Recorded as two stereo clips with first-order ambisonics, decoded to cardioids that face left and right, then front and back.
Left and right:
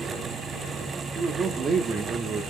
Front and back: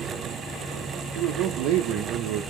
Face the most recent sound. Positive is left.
turn(degrees=-160)